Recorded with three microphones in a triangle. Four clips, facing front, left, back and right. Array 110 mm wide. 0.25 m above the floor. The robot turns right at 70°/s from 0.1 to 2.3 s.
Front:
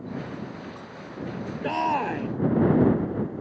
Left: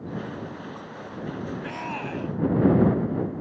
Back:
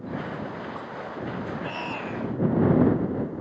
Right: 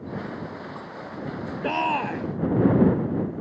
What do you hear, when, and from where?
1.6 s a shout: 60° right; by 2.3 s 15° right